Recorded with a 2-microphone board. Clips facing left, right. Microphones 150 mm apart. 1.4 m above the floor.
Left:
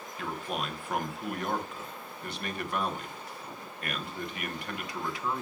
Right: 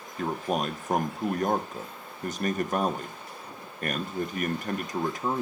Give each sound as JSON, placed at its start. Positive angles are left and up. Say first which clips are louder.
{"t": 0.2, "sound": "a man speaking", "louder": "right 7 dB", "side_deg": -45, "distance_m": 1.0}